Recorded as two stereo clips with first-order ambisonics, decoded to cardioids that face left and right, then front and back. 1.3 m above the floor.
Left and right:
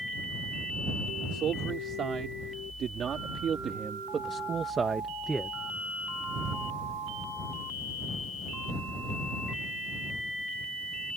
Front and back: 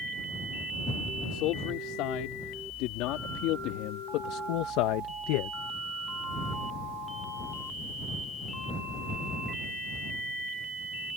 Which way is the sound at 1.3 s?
30° right.